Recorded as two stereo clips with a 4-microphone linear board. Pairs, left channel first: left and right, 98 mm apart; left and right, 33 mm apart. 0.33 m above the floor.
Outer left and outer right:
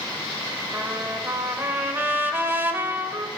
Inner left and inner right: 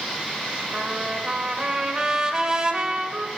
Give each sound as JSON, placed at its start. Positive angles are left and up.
{"t": 0.7, "sound": "a trumpet", "side_deg": -20, "distance_m": 1.5}